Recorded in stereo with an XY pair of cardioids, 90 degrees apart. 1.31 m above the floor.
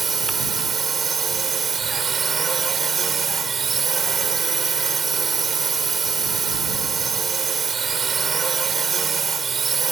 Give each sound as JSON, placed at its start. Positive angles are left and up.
{"t": 0.0, "sound": "a drone", "azimuth_deg": -45}